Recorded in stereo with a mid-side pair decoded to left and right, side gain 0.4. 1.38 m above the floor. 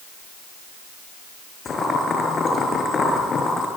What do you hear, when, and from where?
1.6 s boiling: 45° left, 6 m